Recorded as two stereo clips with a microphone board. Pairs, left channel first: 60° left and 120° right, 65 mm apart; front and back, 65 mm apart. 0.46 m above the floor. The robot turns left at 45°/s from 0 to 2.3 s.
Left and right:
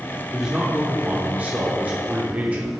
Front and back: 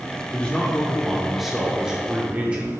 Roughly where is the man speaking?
Ahead right.